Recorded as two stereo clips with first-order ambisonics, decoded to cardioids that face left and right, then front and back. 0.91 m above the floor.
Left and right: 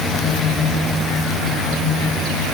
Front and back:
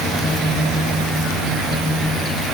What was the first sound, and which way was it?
Only background noise.